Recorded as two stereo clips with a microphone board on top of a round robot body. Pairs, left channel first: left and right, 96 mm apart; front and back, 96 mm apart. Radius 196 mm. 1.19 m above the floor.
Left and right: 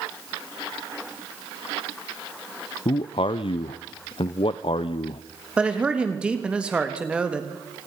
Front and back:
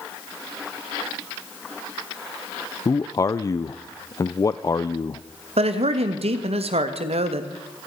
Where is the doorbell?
No doorbell in this recording.